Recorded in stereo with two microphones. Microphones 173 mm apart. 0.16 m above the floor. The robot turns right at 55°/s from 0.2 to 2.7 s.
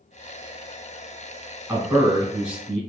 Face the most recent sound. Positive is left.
turn(degrees=-5)  # may be behind; listen again after turning